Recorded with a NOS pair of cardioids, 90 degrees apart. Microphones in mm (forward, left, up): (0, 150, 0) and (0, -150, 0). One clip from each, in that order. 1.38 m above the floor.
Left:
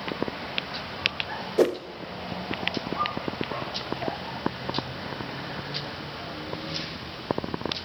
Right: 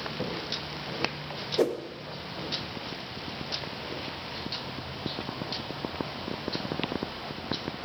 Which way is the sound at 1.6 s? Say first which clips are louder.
Left 4 dB; 20° left.